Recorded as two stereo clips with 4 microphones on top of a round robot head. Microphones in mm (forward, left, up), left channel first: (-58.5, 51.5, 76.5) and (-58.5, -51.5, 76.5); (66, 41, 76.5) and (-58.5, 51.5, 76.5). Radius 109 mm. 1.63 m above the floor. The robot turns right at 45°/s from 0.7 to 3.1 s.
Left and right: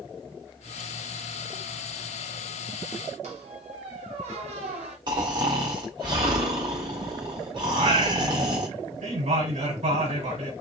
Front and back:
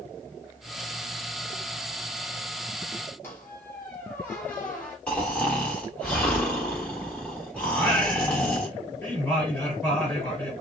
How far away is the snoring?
About 1.3 m.